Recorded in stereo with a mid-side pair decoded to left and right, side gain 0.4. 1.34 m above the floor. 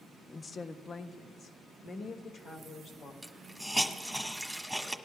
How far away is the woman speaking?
About 0.6 m.